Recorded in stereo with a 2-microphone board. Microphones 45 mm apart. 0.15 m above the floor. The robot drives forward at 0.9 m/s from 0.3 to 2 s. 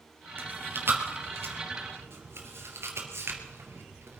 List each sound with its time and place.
0.4 s chewing: 50° right (ahead or behind), 3.5 m; by 4.2 s 65° right (ahead or behind), 3 m